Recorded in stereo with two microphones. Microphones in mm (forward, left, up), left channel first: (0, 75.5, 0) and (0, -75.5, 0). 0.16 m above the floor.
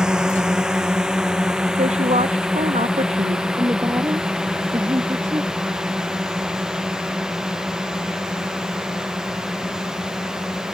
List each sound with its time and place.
0.0 s a drone: 5° right (ahead or behind)
1.8 s a woman speaking: 45° right (ahead or behind)
3.6 s a woman speaking: 25° right (ahead or behind)